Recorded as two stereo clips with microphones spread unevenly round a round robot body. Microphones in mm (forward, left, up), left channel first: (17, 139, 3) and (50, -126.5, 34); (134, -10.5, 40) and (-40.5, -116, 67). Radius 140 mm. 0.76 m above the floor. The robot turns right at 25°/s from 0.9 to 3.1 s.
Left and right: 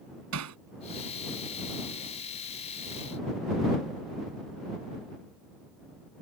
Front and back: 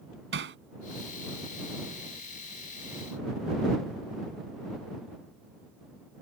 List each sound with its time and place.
0.3 s hammering: 120° right